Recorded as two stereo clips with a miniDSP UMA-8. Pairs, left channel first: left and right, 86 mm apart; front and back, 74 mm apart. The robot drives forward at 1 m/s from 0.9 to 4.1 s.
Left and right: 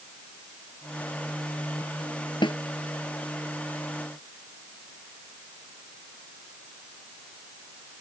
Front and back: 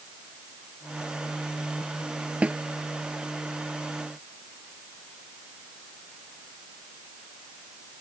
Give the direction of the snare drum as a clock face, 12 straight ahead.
8 o'clock.